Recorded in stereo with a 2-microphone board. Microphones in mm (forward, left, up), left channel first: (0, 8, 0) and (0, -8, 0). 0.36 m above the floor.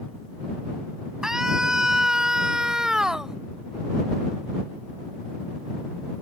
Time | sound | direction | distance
1.2 | a scream | 40° right (ahead or behind) | ?